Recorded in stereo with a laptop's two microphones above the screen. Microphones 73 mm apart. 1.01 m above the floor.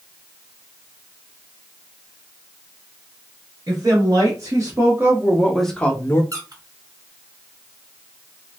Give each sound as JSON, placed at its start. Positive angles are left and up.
{"t": 3.7, "sound": "a woman speaking", "side_deg": -55, "distance_m": 1.4}
{"t": 6.3, "sound": "a squeak", "side_deg": -50, "distance_m": 1.4}